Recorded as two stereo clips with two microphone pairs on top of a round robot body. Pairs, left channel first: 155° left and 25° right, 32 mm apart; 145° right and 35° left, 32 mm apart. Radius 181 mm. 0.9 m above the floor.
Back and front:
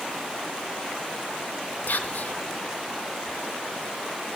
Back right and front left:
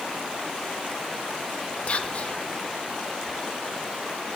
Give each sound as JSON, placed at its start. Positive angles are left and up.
{"t": 1.9, "sound": "whispering", "azimuth_deg": 170, "distance_m": 0.7}